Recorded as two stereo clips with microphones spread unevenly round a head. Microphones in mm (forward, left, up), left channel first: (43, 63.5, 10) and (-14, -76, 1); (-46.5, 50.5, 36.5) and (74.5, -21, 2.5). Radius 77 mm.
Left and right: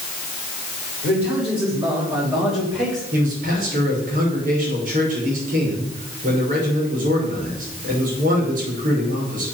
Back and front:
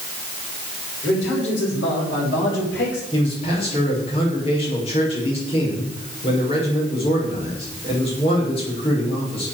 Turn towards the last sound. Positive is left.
turn(degrees=-155)